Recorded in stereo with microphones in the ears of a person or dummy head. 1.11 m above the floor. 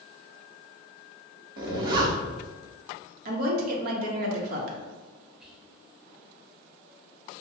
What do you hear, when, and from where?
1.6 s a zipper: 30° right (ahead or behind), 0.7 m
3.2 s a woman speaking: 55° right (ahead or behind), 1.4 m
5.4 s whispering: centre (ahead or behind), 1.5 m